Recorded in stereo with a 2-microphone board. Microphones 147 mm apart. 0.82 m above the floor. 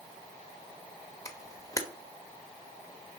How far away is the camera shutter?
About 1.0 m.